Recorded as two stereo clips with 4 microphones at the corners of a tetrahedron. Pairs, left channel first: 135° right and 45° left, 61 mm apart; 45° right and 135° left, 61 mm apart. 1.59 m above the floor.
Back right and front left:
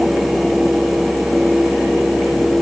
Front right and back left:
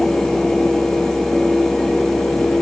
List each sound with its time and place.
Only background noise.